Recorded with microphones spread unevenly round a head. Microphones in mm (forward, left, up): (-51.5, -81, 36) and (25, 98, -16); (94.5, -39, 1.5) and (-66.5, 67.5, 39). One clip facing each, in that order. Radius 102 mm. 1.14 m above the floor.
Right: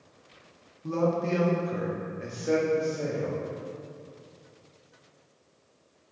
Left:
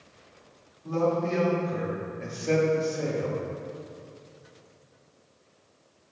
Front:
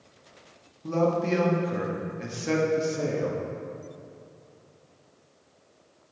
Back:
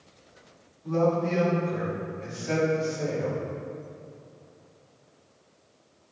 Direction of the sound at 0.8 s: 75° right.